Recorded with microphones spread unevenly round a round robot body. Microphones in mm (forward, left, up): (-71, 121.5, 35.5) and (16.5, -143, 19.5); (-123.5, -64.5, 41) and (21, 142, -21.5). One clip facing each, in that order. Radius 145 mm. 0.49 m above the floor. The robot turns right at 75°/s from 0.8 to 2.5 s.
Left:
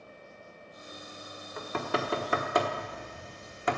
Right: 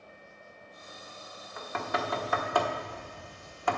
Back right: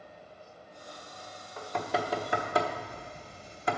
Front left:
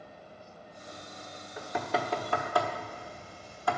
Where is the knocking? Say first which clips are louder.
Left 3 dB, even; 90° left, 1.1 m; by 3.8 s 165° left, 1.1 m.